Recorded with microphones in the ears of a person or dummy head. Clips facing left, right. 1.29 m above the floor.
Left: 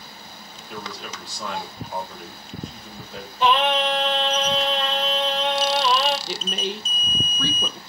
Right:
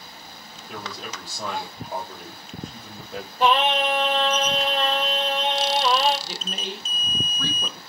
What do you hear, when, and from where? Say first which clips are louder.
0.7 s a man speaking: even; 35° right (ahead or behind), 3.5 m
3.4 s singing: even; 45° right (ahead or behind), 3 m
6.3 s a woman speaking: left 5 dB; 55° left (ahead or behind), 0.8 m